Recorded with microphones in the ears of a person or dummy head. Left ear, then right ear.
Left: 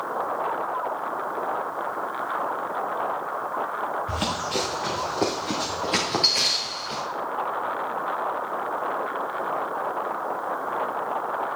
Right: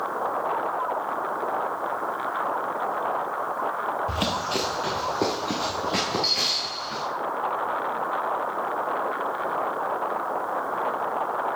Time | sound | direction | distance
4.1 | running footsteps | 5° right (ahead or behind) | 2 m